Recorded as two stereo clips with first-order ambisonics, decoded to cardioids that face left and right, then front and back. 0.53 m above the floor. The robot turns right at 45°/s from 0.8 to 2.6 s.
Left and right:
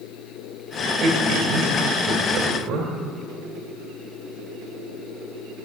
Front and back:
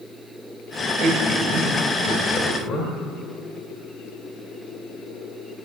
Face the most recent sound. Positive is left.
turn(degrees=-50)